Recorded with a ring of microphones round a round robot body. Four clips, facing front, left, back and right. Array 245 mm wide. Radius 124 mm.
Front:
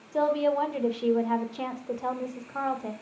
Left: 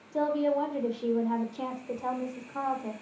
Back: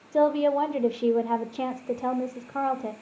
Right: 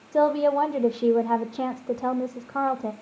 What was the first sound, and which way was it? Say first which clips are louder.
A woman speaking: right 6 dB, back 3 dB; 120° right.